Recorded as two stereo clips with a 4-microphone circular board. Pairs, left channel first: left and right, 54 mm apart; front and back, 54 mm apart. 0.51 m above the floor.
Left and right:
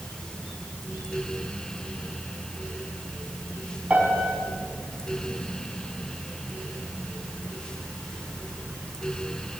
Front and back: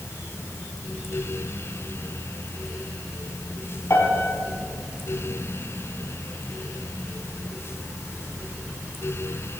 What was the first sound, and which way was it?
A piano, 25° right.